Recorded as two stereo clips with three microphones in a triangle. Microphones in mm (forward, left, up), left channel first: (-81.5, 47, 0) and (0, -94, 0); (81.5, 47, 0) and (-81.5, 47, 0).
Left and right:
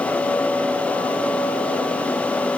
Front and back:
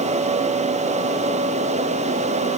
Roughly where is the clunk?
I don't hear a clunk.